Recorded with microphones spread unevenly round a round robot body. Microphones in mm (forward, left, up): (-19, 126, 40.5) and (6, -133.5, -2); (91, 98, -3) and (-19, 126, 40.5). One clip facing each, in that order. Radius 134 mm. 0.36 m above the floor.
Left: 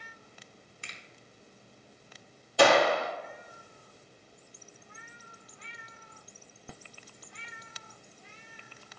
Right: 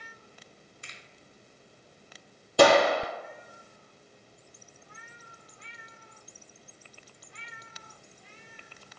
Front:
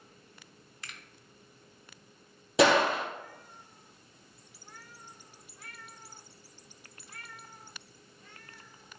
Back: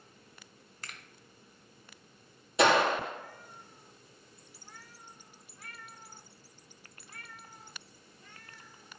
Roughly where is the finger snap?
Left.